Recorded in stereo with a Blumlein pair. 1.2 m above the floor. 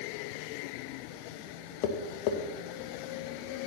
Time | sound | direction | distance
1.8 | tapping | 45° left | 1.1 m